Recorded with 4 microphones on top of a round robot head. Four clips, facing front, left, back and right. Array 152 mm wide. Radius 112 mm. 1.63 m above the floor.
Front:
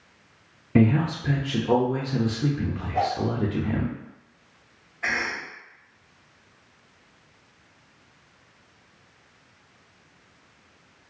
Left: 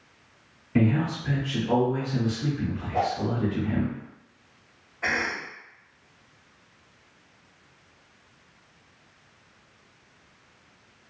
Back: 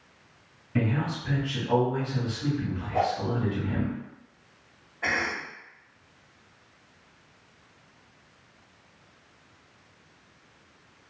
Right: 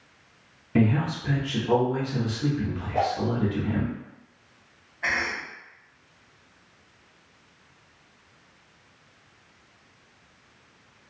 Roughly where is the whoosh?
Behind left.